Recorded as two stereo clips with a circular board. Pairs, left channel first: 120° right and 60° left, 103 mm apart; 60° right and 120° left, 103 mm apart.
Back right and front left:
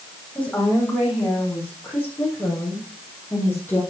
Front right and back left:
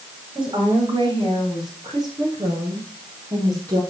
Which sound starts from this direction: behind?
A woman speaking, at 0.3 s.